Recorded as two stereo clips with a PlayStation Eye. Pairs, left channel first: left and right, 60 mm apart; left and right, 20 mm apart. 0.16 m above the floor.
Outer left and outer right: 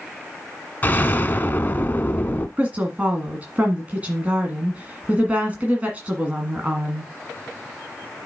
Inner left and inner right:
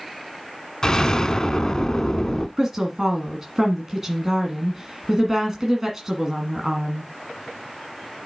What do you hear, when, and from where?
0.8 s an explosion: 30° left (ahead or behind), 0.6 m
2.6 s a woman speaking: 25° right (ahead or behind), 1.5 m